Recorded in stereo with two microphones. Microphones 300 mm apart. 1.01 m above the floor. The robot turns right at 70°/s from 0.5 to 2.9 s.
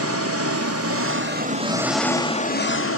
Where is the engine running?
100° right, 1.1 m; by 3.0 s 65° left, 1.1 m.